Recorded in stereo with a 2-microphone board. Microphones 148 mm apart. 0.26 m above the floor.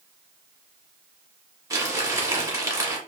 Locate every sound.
1.7 s crumpling: 25° right (ahead or behind), 1.2 m